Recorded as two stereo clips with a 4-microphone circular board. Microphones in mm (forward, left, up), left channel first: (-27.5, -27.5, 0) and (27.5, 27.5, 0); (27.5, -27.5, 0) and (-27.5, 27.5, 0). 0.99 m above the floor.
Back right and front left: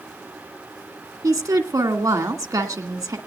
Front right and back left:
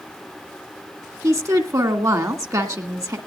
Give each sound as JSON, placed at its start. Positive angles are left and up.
{"t": 1.2, "sound": "a woman speaking", "azimuth_deg": 90, "distance_m": 1.9}